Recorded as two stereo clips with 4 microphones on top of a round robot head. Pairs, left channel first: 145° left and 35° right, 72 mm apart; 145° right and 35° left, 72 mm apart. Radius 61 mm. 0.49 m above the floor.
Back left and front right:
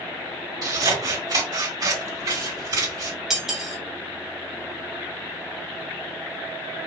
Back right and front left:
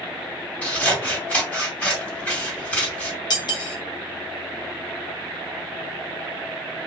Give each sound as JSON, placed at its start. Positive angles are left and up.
{"t": 0.6, "sound": "scissors", "azimuth_deg": -70, "distance_m": 3.0}
{"t": 3.3, "sound": "cutlery clinking", "azimuth_deg": -120, "distance_m": 1.4}